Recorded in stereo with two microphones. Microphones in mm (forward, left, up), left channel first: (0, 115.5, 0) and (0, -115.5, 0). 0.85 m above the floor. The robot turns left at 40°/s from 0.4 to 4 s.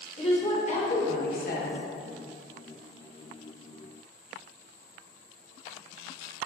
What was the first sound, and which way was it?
A woman speaking, 135° left.